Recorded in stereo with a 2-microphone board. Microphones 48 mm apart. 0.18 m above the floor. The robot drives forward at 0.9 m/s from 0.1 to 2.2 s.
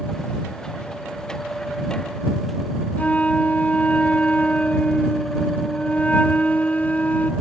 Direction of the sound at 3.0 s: 30° left (ahead or behind).